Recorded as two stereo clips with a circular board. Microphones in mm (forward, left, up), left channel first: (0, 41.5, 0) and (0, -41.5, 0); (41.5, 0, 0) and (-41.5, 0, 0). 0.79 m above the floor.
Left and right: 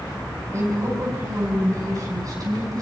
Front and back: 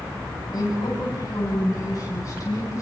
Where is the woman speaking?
35° right, 7 m; by 2.8 s 50° right, 9.5 m.